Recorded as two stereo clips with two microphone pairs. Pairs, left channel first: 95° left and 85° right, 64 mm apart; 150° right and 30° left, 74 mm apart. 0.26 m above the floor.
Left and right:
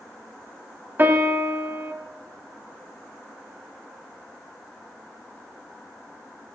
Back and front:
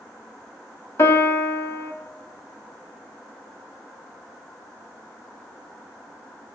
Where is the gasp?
No gasp in this recording.